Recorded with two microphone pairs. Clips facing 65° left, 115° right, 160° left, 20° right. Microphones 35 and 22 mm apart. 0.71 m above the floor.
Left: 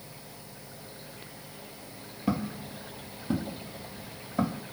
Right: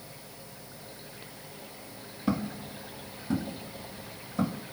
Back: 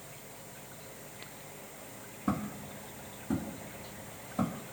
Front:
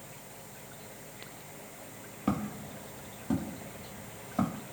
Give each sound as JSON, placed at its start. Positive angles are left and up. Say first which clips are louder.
{"t": 2.3, "sound": "footsteps", "louder": "even, front 2 dB", "azimuth_deg": -15, "distance_m": 1.1}